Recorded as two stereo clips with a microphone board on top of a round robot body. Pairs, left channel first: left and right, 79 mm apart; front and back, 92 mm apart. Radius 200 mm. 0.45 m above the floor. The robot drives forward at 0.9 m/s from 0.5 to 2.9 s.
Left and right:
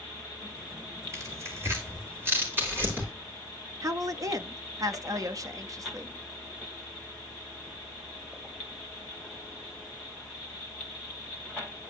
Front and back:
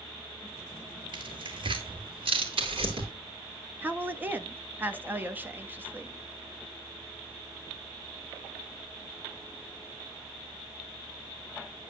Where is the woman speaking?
115° right, 1.1 m.